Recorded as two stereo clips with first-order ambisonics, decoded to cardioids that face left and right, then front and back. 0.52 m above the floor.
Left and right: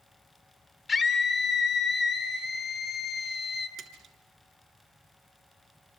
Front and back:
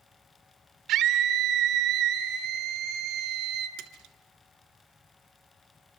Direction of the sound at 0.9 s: 155° left.